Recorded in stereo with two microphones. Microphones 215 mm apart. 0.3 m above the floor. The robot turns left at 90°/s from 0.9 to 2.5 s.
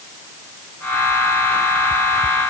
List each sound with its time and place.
Only background noise.